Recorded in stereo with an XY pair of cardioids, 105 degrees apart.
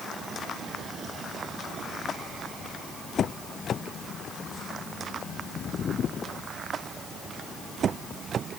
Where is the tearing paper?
I don't hear tearing paper.